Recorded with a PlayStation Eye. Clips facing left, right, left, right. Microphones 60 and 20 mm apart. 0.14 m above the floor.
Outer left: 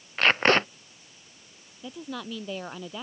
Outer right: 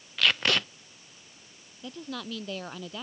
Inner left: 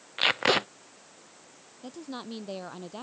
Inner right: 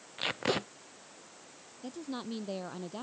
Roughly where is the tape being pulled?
Left.